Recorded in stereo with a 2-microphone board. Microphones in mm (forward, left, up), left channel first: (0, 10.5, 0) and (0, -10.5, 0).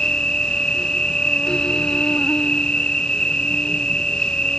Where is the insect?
40° left (ahead or behind).